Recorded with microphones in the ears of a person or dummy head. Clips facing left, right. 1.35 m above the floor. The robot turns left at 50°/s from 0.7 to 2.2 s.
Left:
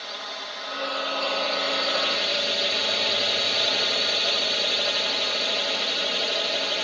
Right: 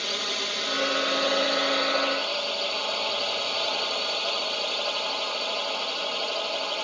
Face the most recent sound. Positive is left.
turn(degrees=155)